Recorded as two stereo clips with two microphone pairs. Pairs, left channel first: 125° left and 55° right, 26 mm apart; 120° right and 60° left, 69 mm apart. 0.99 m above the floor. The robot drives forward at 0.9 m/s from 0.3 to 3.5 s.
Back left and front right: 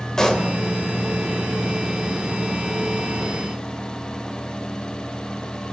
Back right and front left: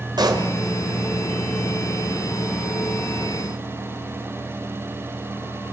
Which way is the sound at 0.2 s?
60° left.